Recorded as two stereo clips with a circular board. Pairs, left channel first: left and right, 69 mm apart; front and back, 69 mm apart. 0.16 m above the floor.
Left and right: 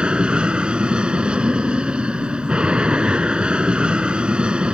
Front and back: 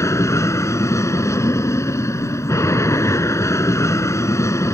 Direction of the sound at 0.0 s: 20° right.